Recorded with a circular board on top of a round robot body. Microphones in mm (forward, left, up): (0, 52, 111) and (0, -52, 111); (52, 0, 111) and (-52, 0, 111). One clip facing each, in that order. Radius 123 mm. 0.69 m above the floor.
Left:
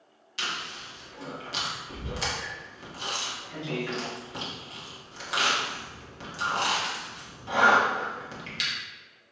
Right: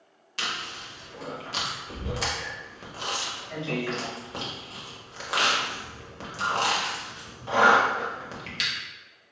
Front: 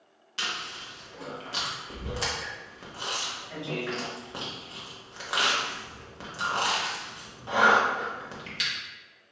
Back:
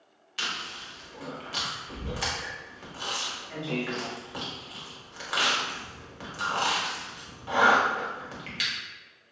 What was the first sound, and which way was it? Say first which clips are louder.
Chewing: right 1 dB, even; 60° right.